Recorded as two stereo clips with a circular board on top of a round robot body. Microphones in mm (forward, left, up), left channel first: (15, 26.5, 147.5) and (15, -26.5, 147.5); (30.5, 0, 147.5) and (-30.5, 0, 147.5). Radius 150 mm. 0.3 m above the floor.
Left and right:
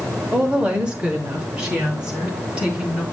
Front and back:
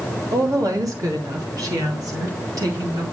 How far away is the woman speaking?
About 2.5 m.